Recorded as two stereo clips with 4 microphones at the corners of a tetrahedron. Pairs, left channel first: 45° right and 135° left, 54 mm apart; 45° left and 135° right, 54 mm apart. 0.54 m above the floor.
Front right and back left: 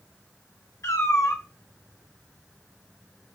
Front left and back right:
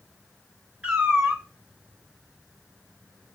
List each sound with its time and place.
0.8 s a cat meowing: 65° right, 2 m